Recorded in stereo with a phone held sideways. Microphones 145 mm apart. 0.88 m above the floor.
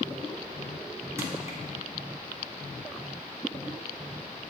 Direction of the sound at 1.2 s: 20° right (ahead or behind).